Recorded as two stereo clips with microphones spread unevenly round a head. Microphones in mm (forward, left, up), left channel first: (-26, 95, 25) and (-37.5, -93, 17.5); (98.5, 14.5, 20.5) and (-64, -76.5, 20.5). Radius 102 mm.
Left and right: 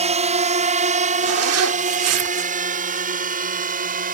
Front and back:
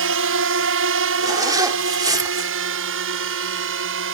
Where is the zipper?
80° right.